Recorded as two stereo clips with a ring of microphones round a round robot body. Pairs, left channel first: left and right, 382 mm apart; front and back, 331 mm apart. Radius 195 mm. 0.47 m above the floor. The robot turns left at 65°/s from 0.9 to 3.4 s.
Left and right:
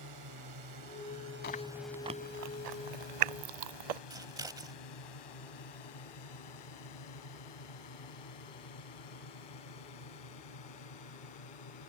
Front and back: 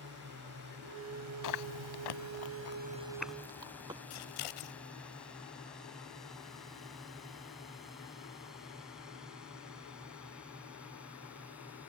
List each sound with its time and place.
0.0 s a drone: 125° right; by 11.9 s 95° left
1.4 s chewing: 25° left; by 4.0 s 100° right
4.1 s scissors: 10° right